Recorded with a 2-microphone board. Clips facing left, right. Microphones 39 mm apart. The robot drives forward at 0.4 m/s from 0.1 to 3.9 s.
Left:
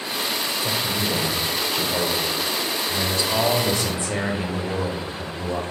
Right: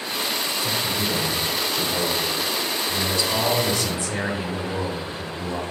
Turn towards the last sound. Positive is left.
turn(degrees=30)  # may be behind; listen again after turning